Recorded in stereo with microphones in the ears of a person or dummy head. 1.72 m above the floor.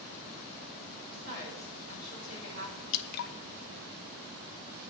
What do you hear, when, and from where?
1.1 s a woman speaking: 45° right (ahead or behind), 5.5 m
2.9 s dripping: 55° left (ahead or behind), 0.7 m